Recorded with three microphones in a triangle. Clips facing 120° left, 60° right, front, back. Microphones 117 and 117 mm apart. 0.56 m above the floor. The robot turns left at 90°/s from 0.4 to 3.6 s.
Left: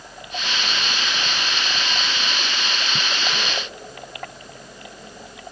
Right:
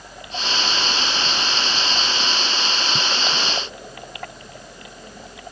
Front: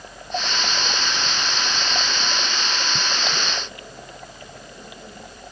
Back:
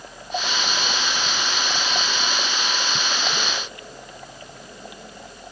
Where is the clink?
No clink in this recording.